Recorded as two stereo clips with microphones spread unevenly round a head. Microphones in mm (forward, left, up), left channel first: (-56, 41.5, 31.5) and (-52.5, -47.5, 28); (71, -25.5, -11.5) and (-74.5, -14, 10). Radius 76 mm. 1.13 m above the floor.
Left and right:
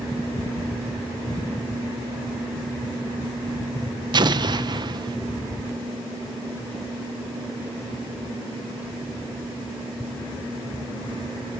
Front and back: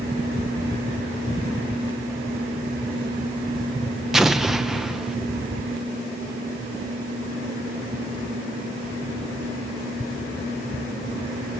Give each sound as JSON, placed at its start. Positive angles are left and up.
{"t": 4.1, "sound": "an explosion", "azimuth_deg": -90, "distance_m": 1.0}